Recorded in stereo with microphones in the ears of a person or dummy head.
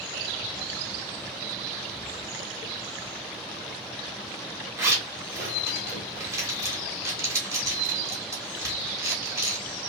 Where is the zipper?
10° right (ahead or behind), 1.0 m.